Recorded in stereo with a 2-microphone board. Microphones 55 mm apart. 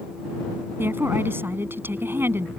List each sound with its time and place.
0.8 s a woman speaking: 40° right (ahead or behind)